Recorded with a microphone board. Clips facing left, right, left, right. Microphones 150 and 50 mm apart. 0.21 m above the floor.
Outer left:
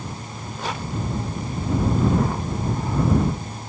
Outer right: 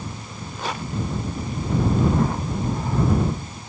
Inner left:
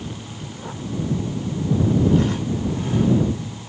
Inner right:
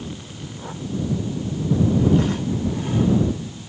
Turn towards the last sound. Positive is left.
No sound to turn to.